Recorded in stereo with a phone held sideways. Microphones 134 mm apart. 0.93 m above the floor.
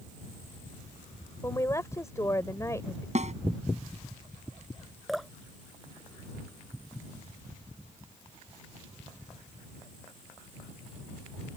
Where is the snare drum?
55° right (ahead or behind).